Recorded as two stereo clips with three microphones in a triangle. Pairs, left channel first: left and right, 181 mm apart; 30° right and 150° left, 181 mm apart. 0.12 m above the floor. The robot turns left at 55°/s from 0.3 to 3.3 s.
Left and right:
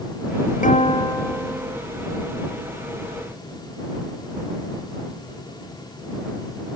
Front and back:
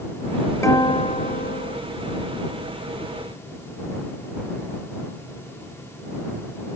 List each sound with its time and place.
0.6 s a guitar: 45° left; by 1.8 s 20° right